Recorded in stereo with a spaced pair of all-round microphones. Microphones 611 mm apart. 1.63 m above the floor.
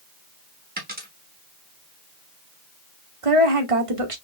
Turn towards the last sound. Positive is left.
turn(degrees=-60)  # may be behind; listen again after turning